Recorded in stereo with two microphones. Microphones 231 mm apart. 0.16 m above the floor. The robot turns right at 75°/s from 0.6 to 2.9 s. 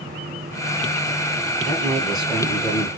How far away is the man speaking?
About 1.4 m.